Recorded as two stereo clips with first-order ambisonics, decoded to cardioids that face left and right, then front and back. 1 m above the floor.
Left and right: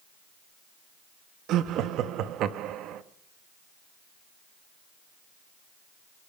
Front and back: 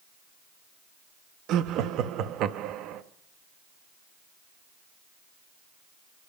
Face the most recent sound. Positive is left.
turn(degrees=-135)